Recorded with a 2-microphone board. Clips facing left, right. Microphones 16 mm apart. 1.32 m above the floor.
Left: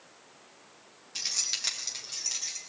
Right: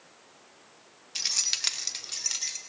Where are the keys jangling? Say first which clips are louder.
Right 3 dB; 20° right (ahead or behind), 1.2 m; by 2.6 s 30° right (ahead or behind), 3.5 m.